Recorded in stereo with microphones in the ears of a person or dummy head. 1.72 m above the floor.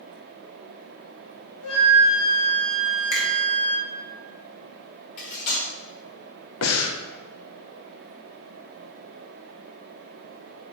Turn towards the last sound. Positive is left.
turn(degrees=85)